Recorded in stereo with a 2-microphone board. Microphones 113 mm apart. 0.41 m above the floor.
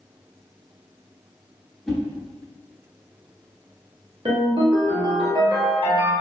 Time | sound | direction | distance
1.9 | a whoosh | centre (ahead or behind) | 0.9 m
4.2 | a ringtone | 55° right (ahead or behind) | 0.8 m